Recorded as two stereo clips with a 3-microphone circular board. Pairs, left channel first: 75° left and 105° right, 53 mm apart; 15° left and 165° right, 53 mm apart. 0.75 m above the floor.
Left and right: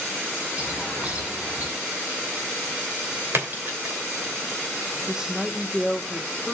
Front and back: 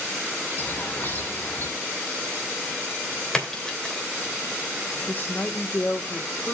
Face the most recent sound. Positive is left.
turn(degrees=-25)